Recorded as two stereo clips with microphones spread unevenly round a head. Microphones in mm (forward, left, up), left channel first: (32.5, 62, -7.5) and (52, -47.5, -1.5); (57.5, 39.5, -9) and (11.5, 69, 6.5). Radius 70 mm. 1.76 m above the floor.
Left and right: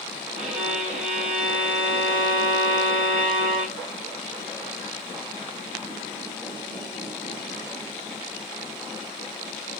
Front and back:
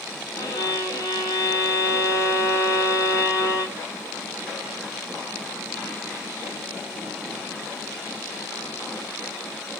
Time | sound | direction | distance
0.3 | a violin | 75° right | 2.5 m